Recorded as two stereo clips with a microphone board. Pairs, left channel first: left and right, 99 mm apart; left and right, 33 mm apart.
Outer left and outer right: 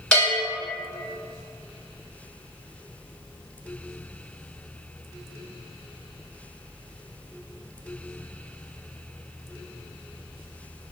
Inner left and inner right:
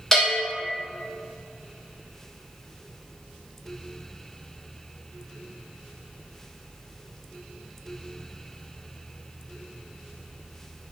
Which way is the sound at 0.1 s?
5° left (ahead or behind).